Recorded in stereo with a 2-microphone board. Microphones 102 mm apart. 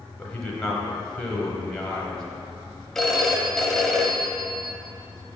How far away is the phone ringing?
About 0.6 m.